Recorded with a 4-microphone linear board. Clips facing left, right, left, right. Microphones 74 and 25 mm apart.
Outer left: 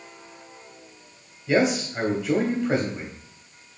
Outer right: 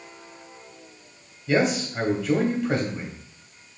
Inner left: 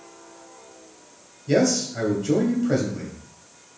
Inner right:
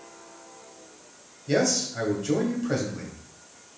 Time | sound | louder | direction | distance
1.5 | a man speaking | outer left 1 dB, inner left 4 dB | 15° left (ahead or behind) | 1.2 m